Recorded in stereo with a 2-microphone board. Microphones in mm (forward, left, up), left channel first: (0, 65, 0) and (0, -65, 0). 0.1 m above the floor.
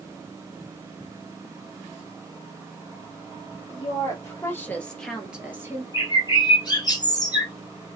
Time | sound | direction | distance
3.7 | a woman speaking | 35° left (ahead or behind) | 2.5 m
5.9 | a bird | 35° left (ahead or behind) | 1.5 m